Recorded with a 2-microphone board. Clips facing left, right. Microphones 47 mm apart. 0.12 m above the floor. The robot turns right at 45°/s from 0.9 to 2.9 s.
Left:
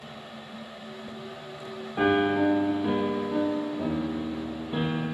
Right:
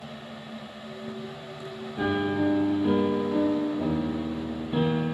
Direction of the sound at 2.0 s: 135° left.